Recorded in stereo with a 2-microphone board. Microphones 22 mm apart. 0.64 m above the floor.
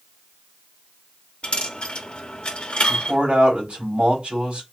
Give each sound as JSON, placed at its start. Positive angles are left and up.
{"t": 1.4, "sound": "a dropped coin", "side_deg": 60, "distance_m": 0.9}
{"t": 2.9, "sound": "a man speaking", "side_deg": -60, "distance_m": 3.0}